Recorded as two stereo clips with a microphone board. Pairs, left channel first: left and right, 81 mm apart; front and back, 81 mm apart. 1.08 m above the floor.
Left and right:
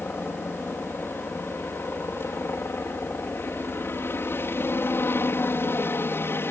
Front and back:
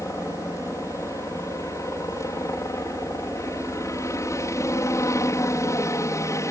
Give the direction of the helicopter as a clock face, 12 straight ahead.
11 o'clock.